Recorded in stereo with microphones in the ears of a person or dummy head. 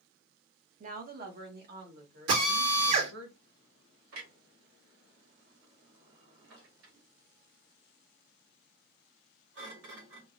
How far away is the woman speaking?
About 0.7 m.